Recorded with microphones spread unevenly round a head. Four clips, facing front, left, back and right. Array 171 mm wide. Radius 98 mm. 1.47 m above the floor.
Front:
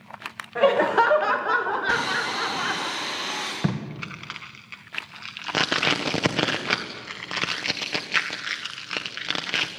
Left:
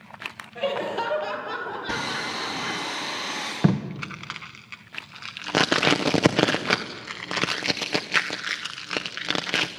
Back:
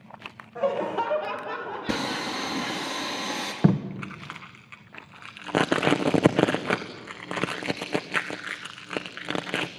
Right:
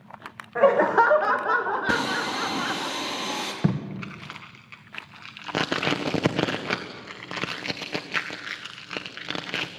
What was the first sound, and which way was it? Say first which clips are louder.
Laughter: right 9 dB, front 7 dB; 55° right.